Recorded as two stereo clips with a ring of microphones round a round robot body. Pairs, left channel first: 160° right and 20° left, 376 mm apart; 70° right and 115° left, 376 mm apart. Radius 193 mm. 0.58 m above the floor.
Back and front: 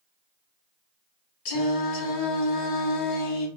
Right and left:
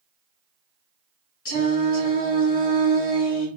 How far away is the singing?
About 2.5 m.